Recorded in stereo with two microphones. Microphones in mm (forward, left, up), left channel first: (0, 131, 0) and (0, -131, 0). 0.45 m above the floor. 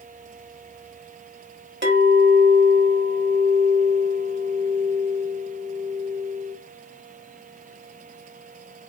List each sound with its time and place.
1.8 s a clink: 45° right (ahead or behind), 1.3 m